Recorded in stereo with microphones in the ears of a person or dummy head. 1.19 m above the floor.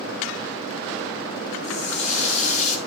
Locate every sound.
1.6 s a running tap: 40° left (ahead or behind), 2 m